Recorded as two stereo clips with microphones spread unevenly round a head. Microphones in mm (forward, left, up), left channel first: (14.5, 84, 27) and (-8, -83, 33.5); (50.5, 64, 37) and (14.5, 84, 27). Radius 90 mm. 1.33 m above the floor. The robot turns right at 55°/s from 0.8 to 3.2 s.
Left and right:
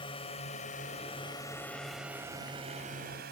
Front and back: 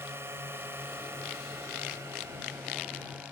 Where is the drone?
145° left; by 3.3 s 135° right.